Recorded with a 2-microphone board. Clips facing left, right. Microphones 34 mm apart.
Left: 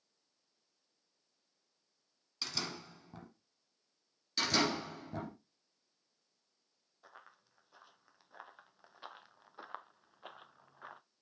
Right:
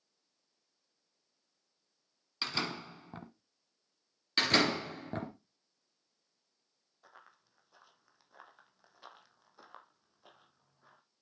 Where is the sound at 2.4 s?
35° right (ahead or behind), 1.2 m.